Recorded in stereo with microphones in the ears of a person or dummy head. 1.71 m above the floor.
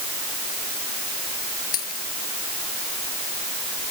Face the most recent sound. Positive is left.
turn(degrees=45)  # may be behind; listen again after turning